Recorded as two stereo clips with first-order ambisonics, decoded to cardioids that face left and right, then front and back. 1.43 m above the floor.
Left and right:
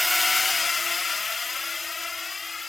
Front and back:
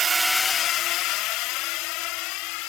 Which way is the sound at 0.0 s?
175° left.